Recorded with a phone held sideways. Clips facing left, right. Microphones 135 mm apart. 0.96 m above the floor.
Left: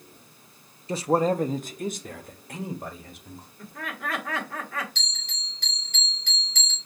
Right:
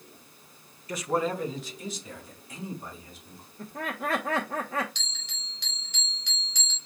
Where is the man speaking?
25° left (ahead or behind), 0.5 m; by 3.5 s 65° left (ahead or behind), 1.8 m.